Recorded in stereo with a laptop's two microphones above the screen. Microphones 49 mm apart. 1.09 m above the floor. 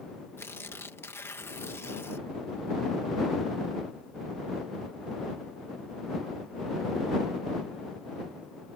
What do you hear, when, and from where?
0.4 s tearing paper: 55° left (ahead or behind)